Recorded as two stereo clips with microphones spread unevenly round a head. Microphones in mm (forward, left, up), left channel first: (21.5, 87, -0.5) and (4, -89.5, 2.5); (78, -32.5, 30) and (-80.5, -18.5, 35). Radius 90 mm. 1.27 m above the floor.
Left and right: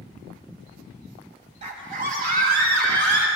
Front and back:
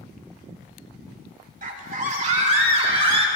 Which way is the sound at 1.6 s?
150° right.